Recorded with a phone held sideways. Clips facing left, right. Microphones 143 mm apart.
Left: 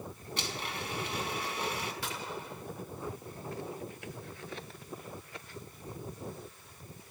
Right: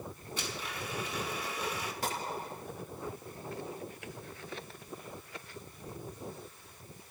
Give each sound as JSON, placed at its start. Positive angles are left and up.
{"t": 0.4, "sound": "a blender", "side_deg": 70, "distance_m": 5.0}
{"t": 2.0, "sound": "a gunshot", "side_deg": -45, "distance_m": 2.5}